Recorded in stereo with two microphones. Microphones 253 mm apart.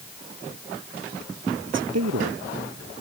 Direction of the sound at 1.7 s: 80° right.